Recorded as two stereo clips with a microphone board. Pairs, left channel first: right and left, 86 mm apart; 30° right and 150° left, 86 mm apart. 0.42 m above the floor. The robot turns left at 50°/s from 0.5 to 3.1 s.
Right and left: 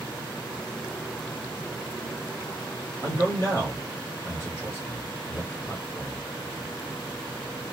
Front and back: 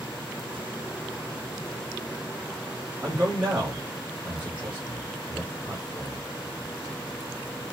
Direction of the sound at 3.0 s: 135° right.